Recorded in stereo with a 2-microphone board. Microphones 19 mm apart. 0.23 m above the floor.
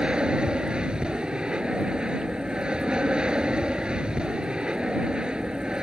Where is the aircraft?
60° right (ahead or behind).